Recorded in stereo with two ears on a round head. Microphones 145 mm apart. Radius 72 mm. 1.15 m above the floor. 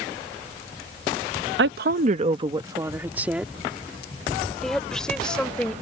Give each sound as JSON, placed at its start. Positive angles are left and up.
{"t": 1.6, "sound": "a woman speaking", "side_deg": -80}